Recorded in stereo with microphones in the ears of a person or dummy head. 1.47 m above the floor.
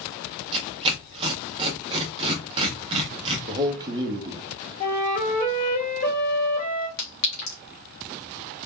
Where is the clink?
60° left (ahead or behind), 1.7 m.